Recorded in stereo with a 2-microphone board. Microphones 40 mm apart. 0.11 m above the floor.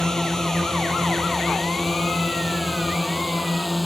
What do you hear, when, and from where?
0.0 s a drone: 10° left (ahead or behind); by 3.9 s 5° right (ahead or behind)